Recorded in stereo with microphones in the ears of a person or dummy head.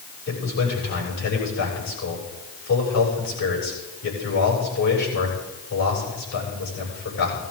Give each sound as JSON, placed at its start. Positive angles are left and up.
{"t": 0.3, "sound": "a man speaking", "side_deg": 50, "distance_m": 7.5}